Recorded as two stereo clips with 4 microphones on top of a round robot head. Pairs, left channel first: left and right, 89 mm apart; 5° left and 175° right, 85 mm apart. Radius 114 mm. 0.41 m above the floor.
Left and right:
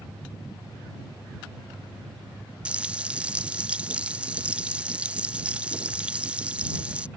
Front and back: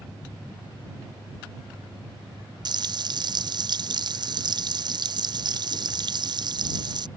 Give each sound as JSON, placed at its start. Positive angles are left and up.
{"t": 2.6, "sound": "frying", "azimuth_deg": -165}